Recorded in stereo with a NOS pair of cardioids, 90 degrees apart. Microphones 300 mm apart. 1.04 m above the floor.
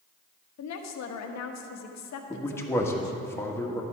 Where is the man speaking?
10° left, 1.4 m.